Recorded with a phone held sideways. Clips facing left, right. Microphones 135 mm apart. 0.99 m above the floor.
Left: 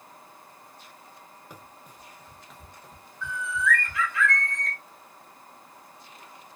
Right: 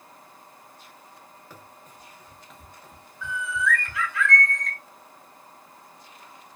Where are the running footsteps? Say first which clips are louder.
Even; 20° left (ahead or behind), 0.9 m; by 4.1 s 15° right (ahead or behind), 1.5 m.